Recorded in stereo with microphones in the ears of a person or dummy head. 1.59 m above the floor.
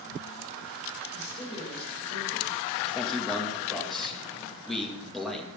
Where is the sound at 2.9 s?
5° left (ahead or behind), 2 m.